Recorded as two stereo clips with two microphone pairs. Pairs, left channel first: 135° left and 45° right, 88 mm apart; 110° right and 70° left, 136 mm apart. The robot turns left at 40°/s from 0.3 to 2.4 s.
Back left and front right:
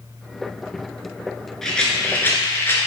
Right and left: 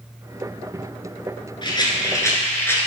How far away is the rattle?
About 1.6 m.